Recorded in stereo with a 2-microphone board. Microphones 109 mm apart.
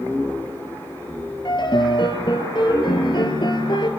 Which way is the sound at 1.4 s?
45° left (ahead or behind).